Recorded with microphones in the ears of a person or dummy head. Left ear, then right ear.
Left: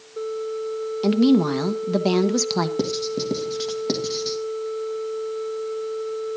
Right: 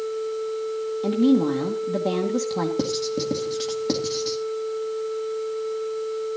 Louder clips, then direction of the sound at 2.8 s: Even; 10° left (ahead or behind).